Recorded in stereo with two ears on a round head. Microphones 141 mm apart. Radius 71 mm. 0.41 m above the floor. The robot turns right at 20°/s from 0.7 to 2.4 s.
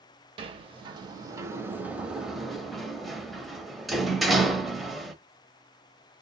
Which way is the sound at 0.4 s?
30° right (ahead or behind).